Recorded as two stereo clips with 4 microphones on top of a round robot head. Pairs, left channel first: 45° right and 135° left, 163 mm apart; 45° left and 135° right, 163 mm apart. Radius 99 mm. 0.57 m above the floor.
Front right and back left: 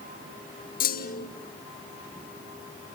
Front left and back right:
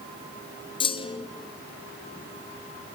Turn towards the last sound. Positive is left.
turn(degrees=-15)